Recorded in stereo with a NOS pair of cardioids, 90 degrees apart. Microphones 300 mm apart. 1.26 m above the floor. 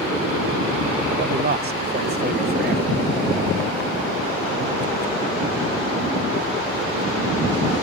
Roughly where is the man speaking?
Ahead right.